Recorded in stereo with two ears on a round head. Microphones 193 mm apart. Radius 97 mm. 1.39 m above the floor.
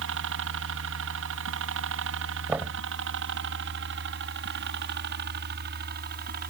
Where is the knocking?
10° right (ahead or behind).